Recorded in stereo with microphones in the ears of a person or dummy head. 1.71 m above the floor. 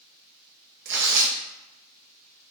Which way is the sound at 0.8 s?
65° right (ahead or behind).